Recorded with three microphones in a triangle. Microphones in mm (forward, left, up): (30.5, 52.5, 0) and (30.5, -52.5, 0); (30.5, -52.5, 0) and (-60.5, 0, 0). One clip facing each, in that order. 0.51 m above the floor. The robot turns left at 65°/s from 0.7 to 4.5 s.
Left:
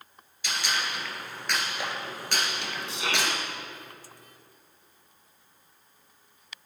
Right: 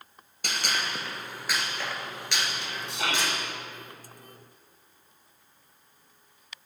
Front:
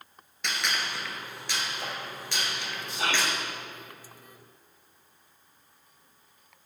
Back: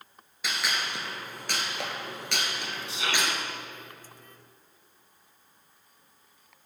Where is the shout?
65° right, 2.5 m; by 3.3 s 95° right, 2.5 m.